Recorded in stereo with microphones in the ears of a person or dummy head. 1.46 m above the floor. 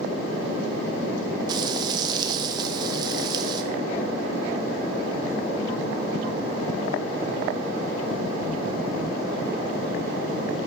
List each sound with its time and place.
1.5 s frying: 30° right (ahead or behind), 1.1 m